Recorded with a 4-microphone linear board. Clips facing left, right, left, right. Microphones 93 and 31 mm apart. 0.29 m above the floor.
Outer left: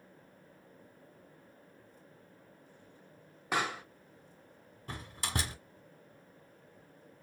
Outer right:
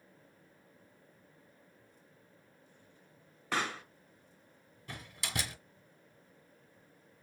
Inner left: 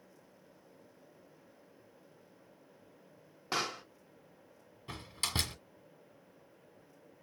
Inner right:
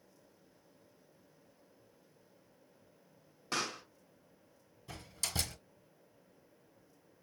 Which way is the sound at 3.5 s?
15° left (ahead or behind).